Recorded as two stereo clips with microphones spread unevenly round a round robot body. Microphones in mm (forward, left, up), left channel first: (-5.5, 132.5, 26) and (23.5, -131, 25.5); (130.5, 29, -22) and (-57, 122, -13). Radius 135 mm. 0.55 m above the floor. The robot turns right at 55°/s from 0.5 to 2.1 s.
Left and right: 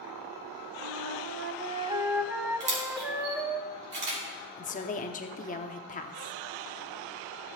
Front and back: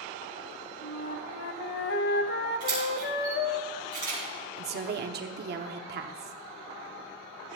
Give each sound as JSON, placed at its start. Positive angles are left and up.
{"t": 0.8, "sound": "a flute", "azimuth_deg": -70, "distance_m": 0.7}
{"t": 2.6, "sound": "a camera shutter", "azimuth_deg": -135, "distance_m": 4.5}
{"t": 4.6, "sound": "a woman speaking", "azimuth_deg": 145, "distance_m": 0.9}